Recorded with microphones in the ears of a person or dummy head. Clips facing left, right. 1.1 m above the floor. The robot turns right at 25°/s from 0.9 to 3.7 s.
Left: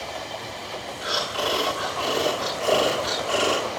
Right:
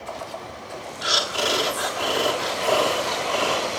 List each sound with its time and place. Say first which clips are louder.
1.0 s breathing: right 2 dB; 35° right, 1.4 m; by 3.7 s 30° left, 1.4 m